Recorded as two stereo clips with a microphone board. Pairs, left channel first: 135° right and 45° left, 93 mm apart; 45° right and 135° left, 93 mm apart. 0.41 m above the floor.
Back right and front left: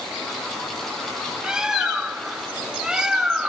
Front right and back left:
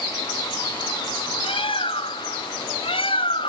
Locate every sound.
1.4 s a bird: 35° right, 0.6 m